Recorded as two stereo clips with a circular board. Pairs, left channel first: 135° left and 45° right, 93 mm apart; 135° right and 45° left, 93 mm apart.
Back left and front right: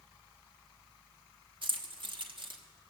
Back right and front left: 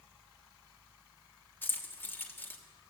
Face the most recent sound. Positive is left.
turn(degrees=-70)